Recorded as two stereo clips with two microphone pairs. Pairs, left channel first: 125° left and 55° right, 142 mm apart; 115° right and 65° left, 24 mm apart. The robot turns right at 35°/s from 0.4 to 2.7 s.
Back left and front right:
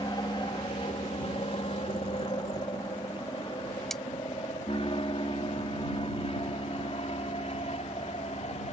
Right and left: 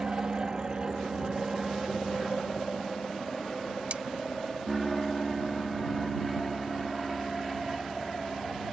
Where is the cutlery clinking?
40° left.